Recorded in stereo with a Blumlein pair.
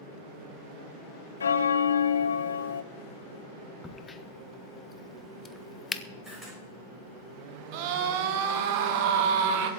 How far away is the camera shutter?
About 7 m.